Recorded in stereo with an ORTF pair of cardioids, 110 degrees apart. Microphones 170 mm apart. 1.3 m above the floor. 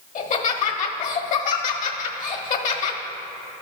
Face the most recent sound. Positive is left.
turn(degrees=50)